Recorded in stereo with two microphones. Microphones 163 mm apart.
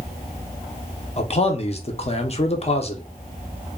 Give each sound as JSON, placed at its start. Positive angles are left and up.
{"t": 1.2, "sound": "a man speaking", "side_deg": 40, "distance_m": 0.6}